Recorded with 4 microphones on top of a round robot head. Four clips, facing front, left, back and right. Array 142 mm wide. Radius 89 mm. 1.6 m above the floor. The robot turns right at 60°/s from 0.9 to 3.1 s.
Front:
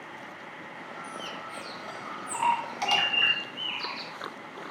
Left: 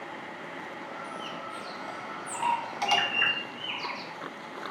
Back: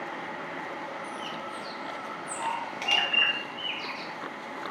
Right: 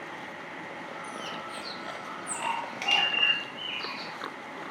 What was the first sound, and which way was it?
A bird, 65° right.